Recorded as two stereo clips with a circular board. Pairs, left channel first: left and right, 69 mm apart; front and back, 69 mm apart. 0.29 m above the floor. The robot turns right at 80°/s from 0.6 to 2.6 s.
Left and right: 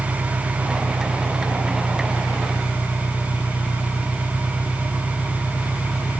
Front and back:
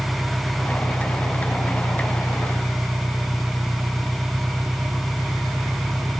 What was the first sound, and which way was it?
An engine running, 75° right.